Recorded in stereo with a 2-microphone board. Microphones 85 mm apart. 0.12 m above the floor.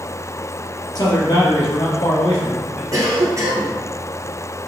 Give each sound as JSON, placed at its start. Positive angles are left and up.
{"t": 0.9, "sound": "a man speaking", "side_deg": 55, "distance_m": 2.0}
{"t": 2.9, "sound": "a cough", "side_deg": -40, "distance_m": 1.9}